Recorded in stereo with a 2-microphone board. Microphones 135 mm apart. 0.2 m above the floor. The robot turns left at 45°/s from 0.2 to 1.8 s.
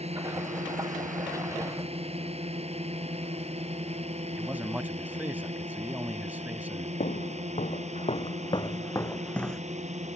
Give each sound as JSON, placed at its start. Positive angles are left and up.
{"t": 0.0, "sound": "a drone", "side_deg": -50}
{"t": 4.4, "sound": "a man speaking", "side_deg": -15}
{"t": 7.0, "sound": "footsteps", "side_deg": 70}